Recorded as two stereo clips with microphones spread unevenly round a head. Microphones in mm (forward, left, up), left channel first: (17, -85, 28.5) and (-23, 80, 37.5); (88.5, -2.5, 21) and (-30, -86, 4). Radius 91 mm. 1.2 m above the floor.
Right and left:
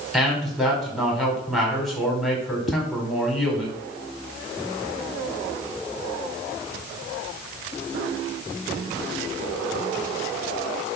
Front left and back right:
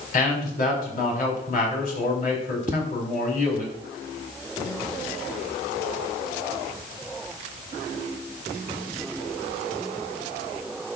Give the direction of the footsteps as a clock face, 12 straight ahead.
3 o'clock.